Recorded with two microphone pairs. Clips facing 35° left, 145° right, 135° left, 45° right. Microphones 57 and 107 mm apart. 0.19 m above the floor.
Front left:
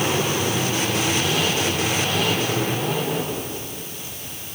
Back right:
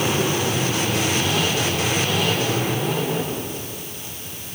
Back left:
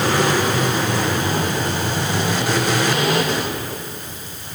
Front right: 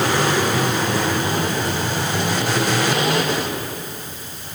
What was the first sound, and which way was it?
Only background noise.